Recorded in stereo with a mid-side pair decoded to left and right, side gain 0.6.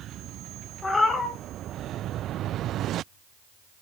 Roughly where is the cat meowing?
Ahead.